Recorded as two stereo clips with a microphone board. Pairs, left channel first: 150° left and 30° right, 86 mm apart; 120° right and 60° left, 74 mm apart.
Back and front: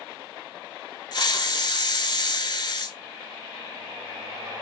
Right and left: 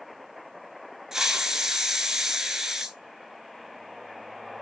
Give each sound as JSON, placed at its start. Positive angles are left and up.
{"t": 1.1, "sound": "a hiss", "azimuth_deg": 145, "distance_m": 0.5}